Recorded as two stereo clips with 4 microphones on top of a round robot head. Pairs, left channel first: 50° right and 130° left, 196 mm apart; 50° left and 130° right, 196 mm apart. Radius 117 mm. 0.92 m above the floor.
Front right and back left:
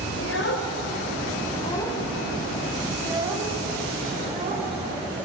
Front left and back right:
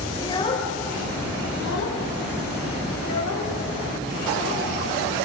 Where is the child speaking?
25° right, 3 m; by 4.7 s 70° left, 6 m.